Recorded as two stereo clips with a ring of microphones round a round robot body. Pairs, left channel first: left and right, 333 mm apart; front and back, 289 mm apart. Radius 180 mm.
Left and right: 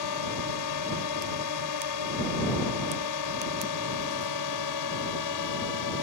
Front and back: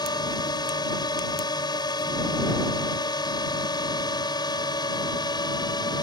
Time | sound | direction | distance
0.0 | a drone | 75° left | ?